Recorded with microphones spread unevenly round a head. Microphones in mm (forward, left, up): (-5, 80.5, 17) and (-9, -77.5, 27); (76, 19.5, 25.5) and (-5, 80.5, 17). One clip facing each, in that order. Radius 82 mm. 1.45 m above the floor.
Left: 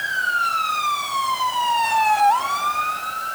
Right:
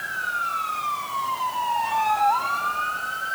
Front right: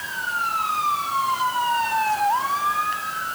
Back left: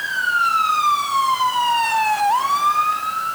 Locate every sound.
Only background noise.